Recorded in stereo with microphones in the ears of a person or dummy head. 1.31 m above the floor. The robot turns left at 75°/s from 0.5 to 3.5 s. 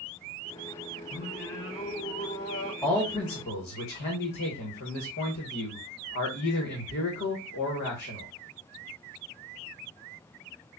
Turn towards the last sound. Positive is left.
turn(degrees=125)